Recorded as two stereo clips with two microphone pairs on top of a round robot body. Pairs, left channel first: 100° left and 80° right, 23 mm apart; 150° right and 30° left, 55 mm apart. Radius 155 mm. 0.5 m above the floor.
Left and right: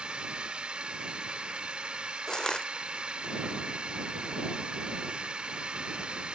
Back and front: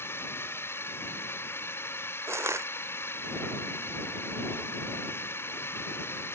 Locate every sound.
0.0 s a drone: 110° right
2.3 s crushing: 50° left